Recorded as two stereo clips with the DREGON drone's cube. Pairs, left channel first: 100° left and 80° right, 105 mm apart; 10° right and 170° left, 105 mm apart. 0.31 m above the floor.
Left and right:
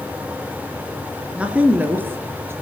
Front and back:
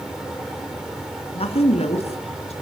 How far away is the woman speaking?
About 3.5 m.